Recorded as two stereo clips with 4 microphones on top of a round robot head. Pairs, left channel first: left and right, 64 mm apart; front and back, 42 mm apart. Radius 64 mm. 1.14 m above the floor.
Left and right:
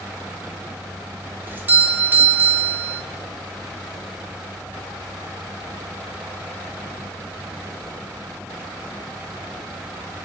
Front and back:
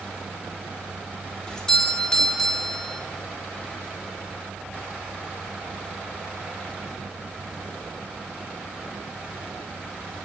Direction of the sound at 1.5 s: 65° right.